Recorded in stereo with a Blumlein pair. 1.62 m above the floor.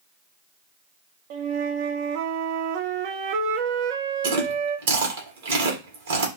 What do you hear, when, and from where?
1.3 s a flute: 45° right, 0.8 m
4.2 s chewing: 60° right, 1.9 m